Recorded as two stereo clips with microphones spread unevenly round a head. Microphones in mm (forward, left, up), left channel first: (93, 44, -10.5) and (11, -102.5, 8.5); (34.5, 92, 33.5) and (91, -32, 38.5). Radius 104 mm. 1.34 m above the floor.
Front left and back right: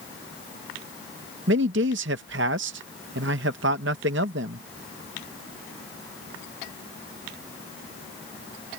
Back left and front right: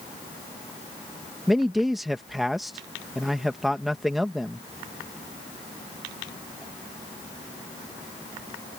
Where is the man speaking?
155° right.